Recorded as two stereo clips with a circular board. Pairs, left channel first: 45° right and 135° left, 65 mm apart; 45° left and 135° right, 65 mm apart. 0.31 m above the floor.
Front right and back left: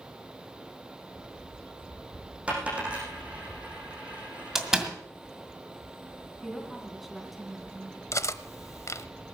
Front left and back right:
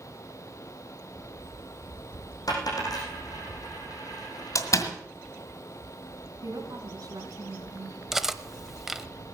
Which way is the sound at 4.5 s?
55° left.